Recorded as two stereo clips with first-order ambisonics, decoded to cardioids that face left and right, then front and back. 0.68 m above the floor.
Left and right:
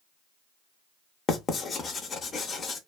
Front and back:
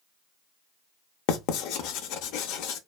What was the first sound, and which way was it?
Writing, 20° left.